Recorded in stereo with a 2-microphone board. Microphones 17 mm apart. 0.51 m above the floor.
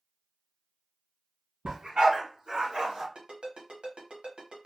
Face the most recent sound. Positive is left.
turn(degrees=-75)  # may be behind; listen again after turning